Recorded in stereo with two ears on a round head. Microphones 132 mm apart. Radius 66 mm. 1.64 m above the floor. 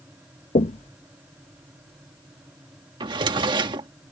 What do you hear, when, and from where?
0.6 s knocking: 45° left (ahead or behind)
3.0 s a drawer: 30° right (ahead or behind)